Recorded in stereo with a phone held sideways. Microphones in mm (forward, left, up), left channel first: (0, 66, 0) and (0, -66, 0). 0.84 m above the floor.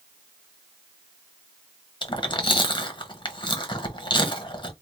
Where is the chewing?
35° left (ahead or behind), 0.9 m.